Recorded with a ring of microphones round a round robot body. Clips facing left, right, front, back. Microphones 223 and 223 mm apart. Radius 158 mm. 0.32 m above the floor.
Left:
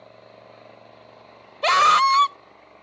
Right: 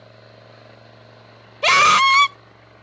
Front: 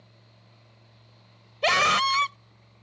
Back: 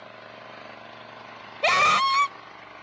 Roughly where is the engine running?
Behind.